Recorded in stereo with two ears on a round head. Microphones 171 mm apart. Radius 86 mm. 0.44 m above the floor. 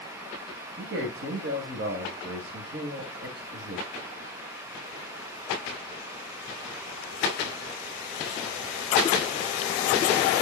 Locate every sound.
0.8 s a man speaking: 65° right (ahead or behind), 2.5 m